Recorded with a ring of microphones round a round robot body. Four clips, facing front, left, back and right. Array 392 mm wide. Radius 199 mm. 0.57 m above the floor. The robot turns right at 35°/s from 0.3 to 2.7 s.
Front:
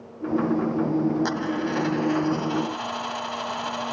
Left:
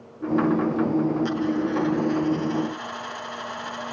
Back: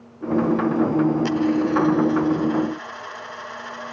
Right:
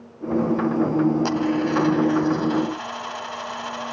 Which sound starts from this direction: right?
A dropped coin, at 1.2 s.